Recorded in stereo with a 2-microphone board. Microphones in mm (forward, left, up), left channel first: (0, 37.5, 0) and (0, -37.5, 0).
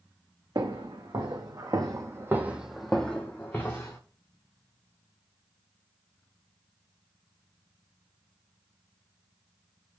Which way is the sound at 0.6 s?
80° right.